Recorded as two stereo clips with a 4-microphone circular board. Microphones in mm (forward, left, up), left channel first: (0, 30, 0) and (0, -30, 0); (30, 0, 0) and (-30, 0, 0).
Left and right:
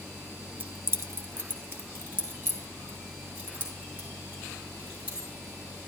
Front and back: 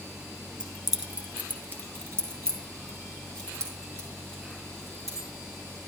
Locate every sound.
0.6 s keys jangling: 70° right, 0.9 m; by 5.3 s 155° right, 4.5 m